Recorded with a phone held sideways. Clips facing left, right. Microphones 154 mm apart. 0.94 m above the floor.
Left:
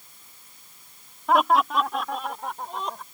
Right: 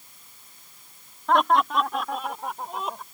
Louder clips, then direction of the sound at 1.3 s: Even; 5° left (ahead or behind).